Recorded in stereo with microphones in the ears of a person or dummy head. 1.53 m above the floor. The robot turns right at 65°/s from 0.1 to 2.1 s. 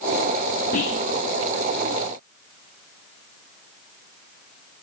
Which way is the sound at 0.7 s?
40° left (ahead or behind).